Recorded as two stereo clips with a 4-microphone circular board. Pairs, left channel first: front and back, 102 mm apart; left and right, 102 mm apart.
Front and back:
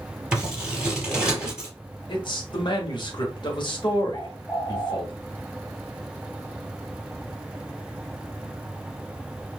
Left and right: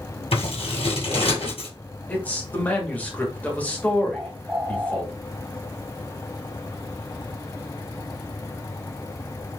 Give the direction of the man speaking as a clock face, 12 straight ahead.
11 o'clock.